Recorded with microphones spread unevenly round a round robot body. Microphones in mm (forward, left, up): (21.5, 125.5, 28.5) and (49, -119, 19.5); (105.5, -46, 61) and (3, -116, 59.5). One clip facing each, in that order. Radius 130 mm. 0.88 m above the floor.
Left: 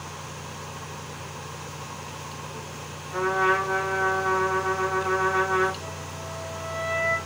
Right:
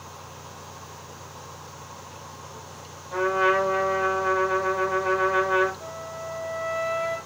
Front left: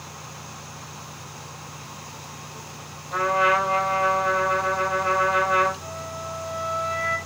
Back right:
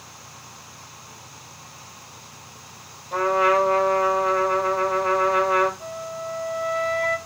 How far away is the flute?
About 5 m.